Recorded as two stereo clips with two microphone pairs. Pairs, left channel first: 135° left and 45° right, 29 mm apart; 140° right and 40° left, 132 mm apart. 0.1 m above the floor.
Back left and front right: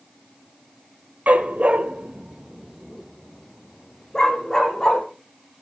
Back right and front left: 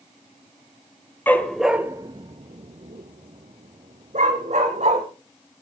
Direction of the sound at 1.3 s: 65° right.